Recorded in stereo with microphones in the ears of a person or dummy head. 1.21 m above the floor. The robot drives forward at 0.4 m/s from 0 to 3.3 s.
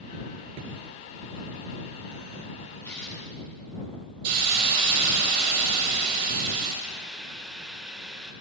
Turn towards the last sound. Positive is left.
turn(degrees=-5)  # may be behind; listen again after turning